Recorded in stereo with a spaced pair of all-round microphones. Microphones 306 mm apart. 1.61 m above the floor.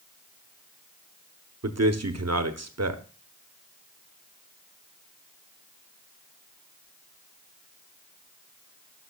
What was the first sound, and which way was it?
A man speaking, 55° right (ahead or behind).